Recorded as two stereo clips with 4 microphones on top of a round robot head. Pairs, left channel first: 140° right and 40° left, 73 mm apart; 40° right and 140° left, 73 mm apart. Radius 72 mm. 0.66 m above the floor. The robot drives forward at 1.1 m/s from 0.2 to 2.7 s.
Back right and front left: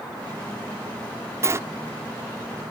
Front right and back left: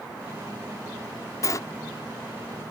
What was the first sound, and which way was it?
A sliding door, 5° right.